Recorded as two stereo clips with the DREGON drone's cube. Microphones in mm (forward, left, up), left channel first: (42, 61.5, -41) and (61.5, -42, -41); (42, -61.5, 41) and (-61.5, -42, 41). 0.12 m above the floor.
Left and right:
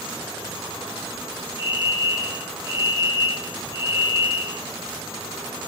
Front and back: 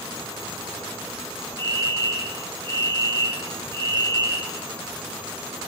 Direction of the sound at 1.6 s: 55° left.